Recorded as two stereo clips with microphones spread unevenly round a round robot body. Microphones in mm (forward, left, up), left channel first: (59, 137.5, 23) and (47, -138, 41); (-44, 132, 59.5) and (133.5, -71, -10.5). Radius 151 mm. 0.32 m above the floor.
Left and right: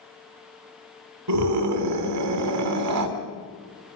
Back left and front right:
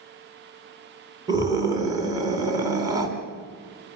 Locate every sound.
1.3 s a scream: 120° right, 3 m